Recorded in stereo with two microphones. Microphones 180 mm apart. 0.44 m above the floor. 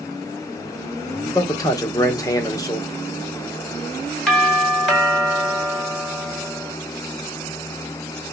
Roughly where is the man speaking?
Centre.